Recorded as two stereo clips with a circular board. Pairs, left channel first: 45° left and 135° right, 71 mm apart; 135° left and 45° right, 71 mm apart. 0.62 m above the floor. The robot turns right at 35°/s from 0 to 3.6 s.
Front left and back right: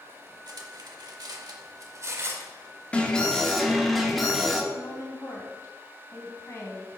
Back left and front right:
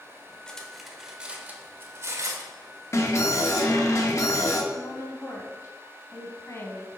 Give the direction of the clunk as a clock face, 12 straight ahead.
No clunk in this recording.